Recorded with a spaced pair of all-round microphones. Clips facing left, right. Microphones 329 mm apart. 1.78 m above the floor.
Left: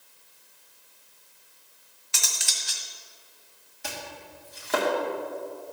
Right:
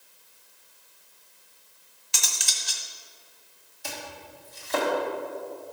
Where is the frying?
No frying in this recording.